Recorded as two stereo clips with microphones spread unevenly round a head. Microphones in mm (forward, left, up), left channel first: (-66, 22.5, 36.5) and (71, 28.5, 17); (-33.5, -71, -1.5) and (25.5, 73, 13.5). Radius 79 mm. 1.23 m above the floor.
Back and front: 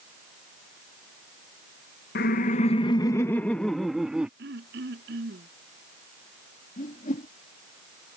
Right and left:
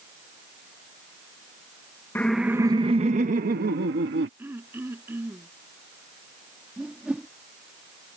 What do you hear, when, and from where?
2.1 s laughter: 170° left; by 4.3 s 90° left
4.4 s throat clearing: 10° right
6.8 s a whoosh: 150° left